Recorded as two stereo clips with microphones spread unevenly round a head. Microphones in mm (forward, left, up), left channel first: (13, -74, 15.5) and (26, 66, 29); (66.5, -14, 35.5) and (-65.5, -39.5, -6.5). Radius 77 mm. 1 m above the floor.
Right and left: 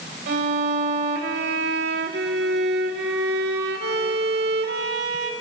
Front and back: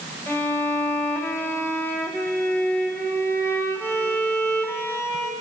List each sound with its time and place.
0.3 s a violin: 90° left, 2 m